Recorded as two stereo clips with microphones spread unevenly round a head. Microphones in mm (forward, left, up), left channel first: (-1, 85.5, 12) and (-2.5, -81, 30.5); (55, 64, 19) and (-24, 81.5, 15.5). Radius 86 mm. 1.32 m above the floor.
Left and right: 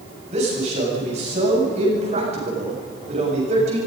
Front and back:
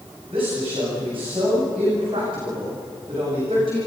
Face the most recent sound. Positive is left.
turn(degrees=-140)